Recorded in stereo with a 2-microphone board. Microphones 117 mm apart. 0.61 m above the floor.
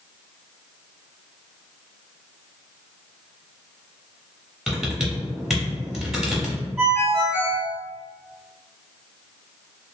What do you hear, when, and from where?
4.7 s typing on a keyboard: 5° right (ahead or behind), 0.7 m
6.8 s a ringtone: 15° right (ahead or behind), 1.5 m